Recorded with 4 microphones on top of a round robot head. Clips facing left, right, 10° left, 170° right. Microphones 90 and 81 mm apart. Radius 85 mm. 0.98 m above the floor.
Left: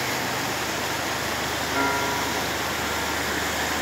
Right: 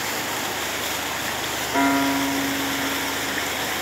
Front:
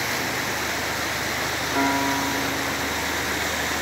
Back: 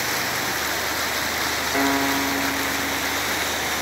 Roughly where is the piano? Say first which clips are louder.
Right 6 dB, back 1 dB; behind right.